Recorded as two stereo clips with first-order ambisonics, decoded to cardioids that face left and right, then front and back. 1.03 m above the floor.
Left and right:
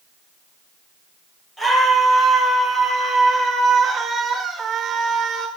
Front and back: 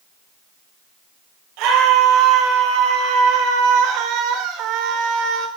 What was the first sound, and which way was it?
A scream, 170° left.